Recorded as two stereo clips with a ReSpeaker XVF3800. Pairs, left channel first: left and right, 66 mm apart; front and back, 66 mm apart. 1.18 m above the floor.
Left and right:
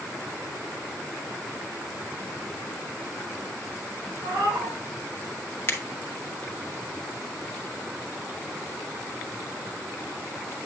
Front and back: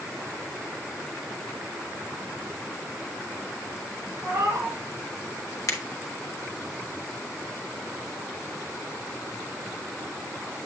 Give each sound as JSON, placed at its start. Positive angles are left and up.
{"t": 4.2, "sound": "a cat meowing", "azimuth_deg": -125, "distance_m": 5.0}
{"t": 5.7, "sound": "a finger snap", "azimuth_deg": 35, "distance_m": 1.0}